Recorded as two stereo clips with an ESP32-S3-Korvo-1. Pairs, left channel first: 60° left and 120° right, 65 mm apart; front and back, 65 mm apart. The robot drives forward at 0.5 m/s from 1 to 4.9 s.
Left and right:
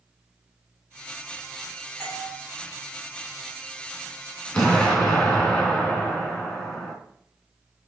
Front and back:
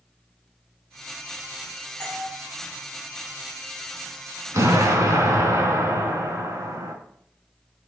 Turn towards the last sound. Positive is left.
turn(degrees=145)